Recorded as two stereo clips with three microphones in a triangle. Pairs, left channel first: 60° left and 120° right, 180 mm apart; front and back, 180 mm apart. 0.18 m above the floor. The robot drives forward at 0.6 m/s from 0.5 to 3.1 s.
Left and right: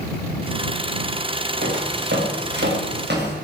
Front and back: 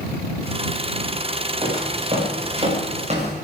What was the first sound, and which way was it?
Footsteps, 120° right.